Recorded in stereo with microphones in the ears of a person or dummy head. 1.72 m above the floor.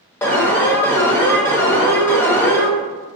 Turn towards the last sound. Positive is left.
turn(degrees=15)  # may be behind; listen again after turning